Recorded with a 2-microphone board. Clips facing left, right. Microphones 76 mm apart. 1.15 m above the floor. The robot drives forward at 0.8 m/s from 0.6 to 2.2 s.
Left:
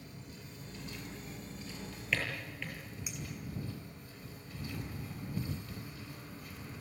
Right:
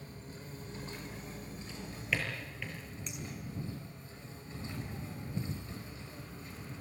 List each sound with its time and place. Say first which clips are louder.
0.0 s an insect: right 2 dB; 35° right (ahead or behind), 4 m; by 6.8 s 30° right (ahead or behind), 5 m
1.7 s a drawer: even; centre (ahead or behind), 7.5 m
3.1 s a clink: right 1 dB; 10° left (ahead or behind), 6 m